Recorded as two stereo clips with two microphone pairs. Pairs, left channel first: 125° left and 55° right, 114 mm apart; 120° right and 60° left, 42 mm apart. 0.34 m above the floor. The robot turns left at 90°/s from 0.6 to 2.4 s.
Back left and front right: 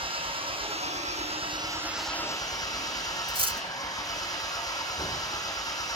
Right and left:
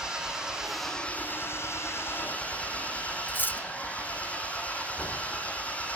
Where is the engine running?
15° right, 5.5 m; by 6.0 s 175° right, 5.5 m.